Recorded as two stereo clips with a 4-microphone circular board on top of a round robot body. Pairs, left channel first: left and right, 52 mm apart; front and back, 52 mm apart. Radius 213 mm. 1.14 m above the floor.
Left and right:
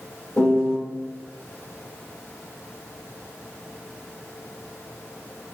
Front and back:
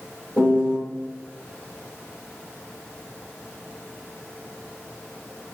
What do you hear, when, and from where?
0.4 s a piano: 60° left, 0.8 m